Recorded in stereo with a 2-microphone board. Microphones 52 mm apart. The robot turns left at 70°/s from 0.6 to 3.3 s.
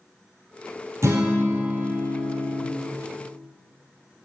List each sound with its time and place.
1.0 s a guitar: 70° right, 1.2 m; by 2.7 s 175° left, 1.2 m